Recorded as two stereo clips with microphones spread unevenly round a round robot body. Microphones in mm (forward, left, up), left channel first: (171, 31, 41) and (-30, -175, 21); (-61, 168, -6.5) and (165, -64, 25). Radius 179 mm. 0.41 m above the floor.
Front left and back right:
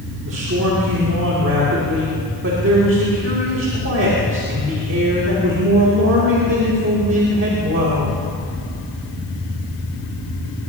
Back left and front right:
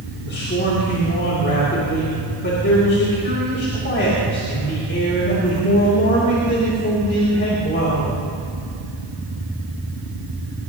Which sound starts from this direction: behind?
A man speaking, at 0.3 s.